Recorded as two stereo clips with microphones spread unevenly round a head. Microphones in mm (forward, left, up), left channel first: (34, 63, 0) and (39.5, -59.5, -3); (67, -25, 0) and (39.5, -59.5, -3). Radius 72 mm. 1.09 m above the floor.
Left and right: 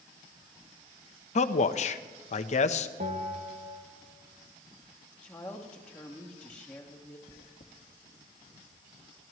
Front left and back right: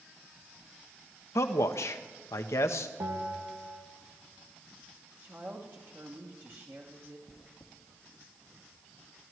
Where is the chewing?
65° left, 1.7 m.